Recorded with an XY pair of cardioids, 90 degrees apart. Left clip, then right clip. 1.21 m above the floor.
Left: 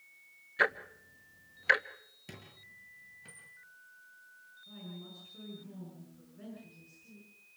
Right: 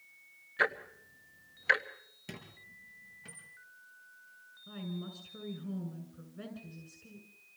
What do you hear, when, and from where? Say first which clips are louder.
0.6 s ticking: left 1 dB; 15° left, 1.2 m
2.3 s a squeak: right 3 dB; 25° right, 6.5 m
4.7 s a woman speaking: right 5 dB; 70° right, 7 m